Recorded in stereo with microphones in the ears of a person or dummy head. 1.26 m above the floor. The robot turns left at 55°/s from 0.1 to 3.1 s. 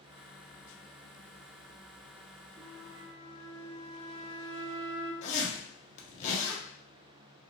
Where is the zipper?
35° left (ahead or behind), 1.0 m.